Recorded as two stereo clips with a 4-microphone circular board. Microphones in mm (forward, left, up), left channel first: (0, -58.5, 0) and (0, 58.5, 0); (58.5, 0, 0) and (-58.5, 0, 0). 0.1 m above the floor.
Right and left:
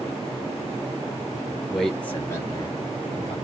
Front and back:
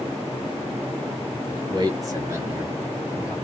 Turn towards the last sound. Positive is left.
turn(degrees=-95)